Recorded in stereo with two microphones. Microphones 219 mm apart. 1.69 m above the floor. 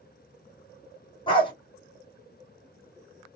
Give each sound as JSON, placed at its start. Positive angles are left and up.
{"t": 1.3, "sound": "a dog barking", "side_deg": 20, "distance_m": 1.3}